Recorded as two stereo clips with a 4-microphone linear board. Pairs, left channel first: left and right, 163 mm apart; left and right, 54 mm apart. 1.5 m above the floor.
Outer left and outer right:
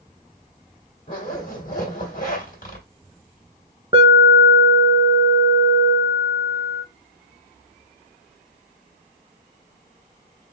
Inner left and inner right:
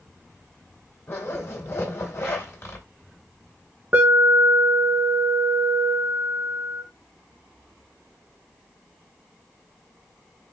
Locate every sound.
1.1 s a zipper: 55° left (ahead or behind), 2.5 m
3.9 s an alarm: 30° right (ahead or behind), 1.5 m